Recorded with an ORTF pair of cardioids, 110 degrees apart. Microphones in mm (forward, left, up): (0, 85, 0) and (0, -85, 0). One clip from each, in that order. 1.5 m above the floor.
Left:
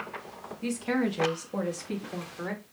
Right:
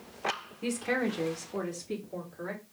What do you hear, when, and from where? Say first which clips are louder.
0.6 s a woman speaking: left 1 dB; 5° right, 0.8 m; by 2.6 s 30° left, 1.6 m